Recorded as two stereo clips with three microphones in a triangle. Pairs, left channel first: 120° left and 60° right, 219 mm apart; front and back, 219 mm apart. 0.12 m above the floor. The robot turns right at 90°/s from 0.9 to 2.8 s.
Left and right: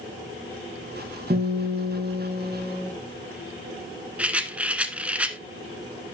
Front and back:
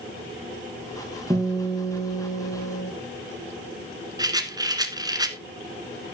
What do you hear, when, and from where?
1.3 s a guitar: 115° right, 4 m; by 2.9 s 20° left, 4 m
4.2 s a rattle: 135° right, 1.0 m